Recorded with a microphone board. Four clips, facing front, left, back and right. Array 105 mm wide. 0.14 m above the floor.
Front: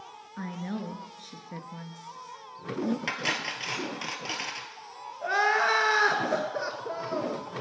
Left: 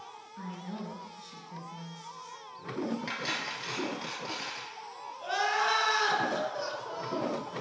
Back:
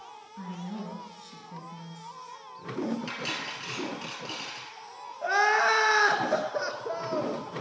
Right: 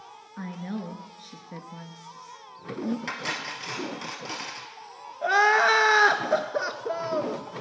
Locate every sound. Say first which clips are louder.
0.4 s a woman speaking: right 6 dB, front 3 dB; 40° right, 1.9 m
3.1 s cutlery clinking: right 3 dB, front 3 dB; 10° right, 1.5 m
5.2 s crying: right 9 dB, back 1 dB; 100° right, 1.0 m